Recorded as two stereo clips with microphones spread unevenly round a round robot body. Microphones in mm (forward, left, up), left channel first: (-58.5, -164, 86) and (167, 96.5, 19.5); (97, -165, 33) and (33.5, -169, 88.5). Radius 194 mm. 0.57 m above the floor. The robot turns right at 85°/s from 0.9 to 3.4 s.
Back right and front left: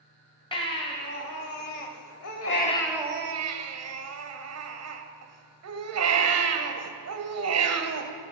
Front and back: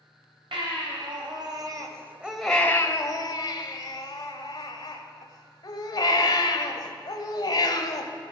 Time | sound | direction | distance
0.5 | a baby crying | 150° left | 1.5 m